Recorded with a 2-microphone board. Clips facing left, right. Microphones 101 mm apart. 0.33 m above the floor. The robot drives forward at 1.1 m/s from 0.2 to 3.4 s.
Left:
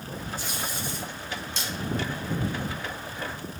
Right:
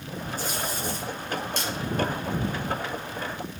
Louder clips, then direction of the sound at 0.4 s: Right 3 dB; 45° right (ahead or behind).